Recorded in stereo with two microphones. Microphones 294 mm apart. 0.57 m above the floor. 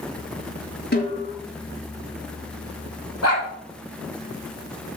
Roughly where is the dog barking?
Left.